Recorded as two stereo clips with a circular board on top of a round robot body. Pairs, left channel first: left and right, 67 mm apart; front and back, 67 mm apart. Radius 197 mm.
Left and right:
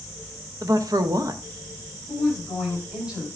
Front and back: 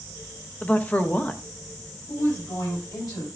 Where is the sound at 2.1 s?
15° right, 6 m.